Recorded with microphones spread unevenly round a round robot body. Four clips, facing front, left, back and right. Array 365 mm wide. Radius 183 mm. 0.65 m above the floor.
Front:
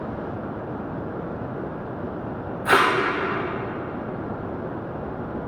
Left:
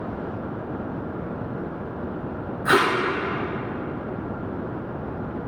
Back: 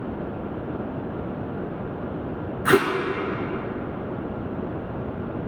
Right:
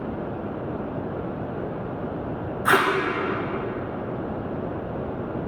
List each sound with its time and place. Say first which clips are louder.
2.6 s tape being pulled: left 1 dB, even; 170° left, 1.4 m